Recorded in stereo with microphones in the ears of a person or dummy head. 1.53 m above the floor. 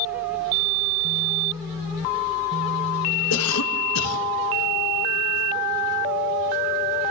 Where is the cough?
85° left, 2.5 m.